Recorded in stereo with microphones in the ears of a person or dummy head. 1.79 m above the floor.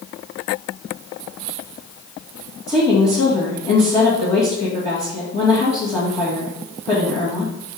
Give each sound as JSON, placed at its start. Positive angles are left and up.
{"t": 2.7, "sound": "a woman speaking", "side_deg": 15, "distance_m": 1.9}